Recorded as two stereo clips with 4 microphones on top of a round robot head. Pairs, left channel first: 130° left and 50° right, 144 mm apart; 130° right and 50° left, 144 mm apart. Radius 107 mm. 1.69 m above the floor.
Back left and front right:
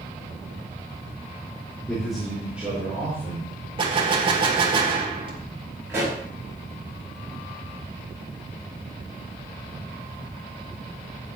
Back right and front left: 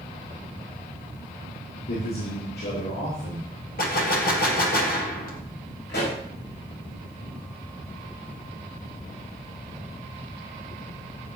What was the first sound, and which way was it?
A man speaking, 145° right.